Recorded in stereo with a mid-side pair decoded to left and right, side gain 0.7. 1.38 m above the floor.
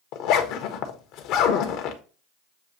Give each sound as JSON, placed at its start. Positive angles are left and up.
{"t": 0.1, "sound": "a zipper", "azimuth_deg": 65, "distance_m": 1.0}